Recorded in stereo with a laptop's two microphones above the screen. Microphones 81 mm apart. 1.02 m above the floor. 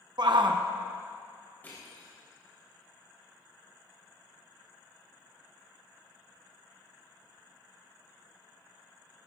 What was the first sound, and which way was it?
A shout, 65° right (ahead or behind).